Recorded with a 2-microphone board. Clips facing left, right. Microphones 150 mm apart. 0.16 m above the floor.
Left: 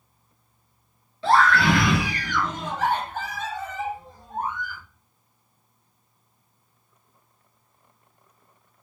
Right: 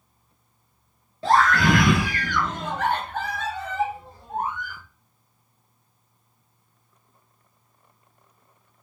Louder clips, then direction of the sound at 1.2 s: Even; 40° right (ahead or behind).